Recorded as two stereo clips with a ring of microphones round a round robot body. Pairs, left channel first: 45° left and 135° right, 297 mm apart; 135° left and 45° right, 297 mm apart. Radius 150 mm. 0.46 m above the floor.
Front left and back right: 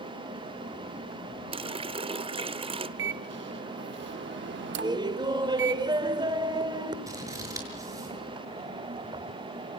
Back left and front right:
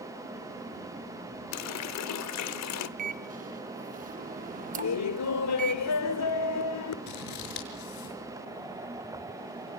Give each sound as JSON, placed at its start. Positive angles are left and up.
{"t": 1.5, "sound": "a running tap", "azimuth_deg": 155, "distance_m": 0.9}
{"t": 3.0, "sound": "a microwave", "azimuth_deg": -100, "distance_m": 0.7}
{"t": 4.7, "sound": "laughter", "azimuth_deg": 150, "distance_m": 1.5}
{"t": 7.1, "sound": "scissors", "azimuth_deg": 145, "distance_m": 6.0}